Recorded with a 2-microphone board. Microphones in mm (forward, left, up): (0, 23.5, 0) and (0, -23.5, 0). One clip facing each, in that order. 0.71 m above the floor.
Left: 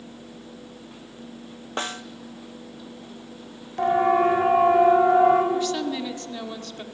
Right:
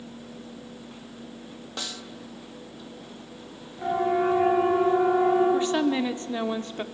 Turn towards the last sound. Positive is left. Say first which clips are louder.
# right 3 dB
turn(degrees=-25)  # may be behind; listen again after turning